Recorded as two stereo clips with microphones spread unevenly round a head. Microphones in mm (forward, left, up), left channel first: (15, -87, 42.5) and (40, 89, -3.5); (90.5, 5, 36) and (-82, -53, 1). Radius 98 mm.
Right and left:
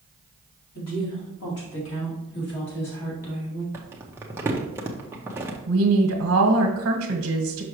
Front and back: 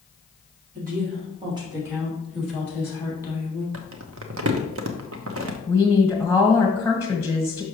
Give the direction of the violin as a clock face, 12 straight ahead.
I don't hear a violin.